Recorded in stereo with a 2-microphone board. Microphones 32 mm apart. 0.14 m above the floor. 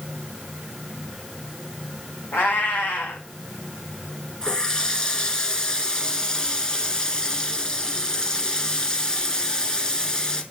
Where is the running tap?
25° left (ahead or behind), 1.3 m.